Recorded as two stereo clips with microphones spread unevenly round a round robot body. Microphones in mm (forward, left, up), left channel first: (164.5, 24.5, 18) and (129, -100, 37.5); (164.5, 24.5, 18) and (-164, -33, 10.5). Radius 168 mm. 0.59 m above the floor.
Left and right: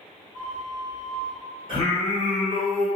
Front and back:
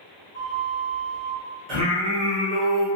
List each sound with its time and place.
0.3 s a flute: 90° left, 1.1 m
1.7 s singing: 165° right, 1.3 m